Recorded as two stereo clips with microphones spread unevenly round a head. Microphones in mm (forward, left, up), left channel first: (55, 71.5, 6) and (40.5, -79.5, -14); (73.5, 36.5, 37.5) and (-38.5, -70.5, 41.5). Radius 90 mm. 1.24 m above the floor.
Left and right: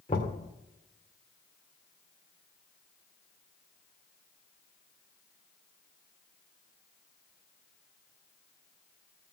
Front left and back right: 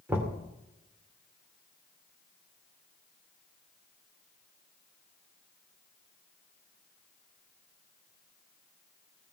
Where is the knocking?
145° left, 2.5 m.